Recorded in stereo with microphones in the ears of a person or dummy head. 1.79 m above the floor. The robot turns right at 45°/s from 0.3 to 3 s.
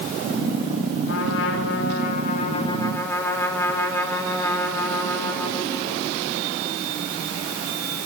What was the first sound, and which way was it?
A trumpet, 75° left.